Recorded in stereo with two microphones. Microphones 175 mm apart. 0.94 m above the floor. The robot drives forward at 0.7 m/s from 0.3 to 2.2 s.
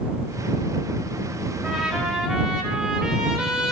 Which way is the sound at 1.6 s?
5° right (ahead or behind).